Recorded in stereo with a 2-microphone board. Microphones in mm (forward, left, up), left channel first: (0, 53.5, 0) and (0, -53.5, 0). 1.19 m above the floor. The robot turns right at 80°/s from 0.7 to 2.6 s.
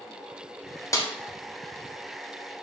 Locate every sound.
0.9 s a snare drum: 30° left (ahead or behind), 0.7 m; by 1.1 s 35° left (ahead or behind), 0.7 m